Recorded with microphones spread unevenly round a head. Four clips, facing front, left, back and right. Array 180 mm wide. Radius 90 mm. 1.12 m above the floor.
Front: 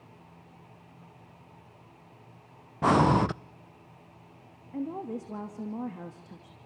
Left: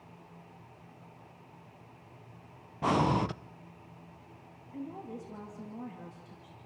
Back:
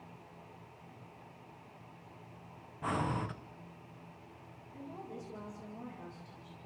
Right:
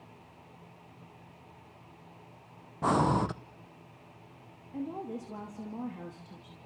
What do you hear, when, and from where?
2.8 s breathing: 5° right, 0.5 m
4.7 s a woman speaking: 15° right, 2.5 m